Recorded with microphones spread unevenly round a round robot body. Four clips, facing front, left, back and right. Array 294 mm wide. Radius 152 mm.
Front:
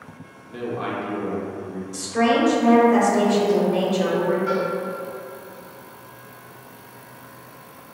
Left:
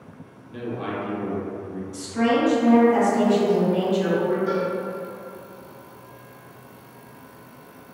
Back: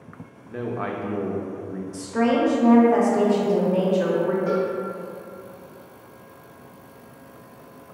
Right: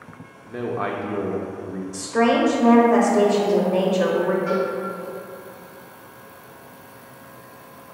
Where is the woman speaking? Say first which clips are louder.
Right 3 dB, front 2 dB; 100° right, 0.9 m.